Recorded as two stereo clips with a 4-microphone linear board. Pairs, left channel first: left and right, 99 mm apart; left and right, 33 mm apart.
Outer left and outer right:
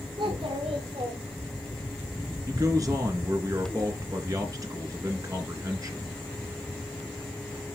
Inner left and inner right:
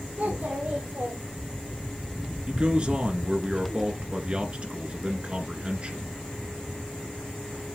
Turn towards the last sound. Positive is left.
turn(degrees=-35)  # may be behind; listen again after turning